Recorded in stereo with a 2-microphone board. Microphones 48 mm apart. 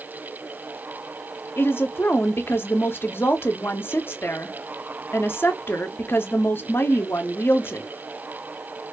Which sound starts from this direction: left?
A woman speaking, at 1.6 s.